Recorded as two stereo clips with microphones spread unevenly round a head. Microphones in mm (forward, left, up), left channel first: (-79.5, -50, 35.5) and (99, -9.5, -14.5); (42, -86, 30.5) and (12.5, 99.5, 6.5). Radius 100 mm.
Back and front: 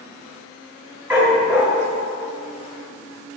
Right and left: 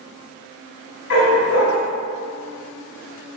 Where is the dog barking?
80° right, 2 m.